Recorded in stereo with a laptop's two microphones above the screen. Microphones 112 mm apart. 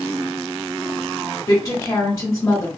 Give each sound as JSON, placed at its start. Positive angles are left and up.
{"t": 1.5, "sound": "a woman speaking", "side_deg": 35, "distance_m": 1.1}